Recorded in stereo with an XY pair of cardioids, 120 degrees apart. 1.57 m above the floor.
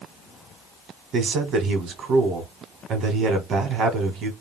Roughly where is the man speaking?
Ahead right.